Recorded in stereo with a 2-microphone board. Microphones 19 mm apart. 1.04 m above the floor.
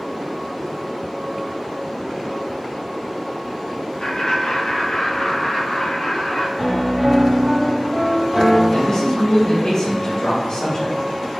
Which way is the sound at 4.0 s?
45° left (ahead or behind).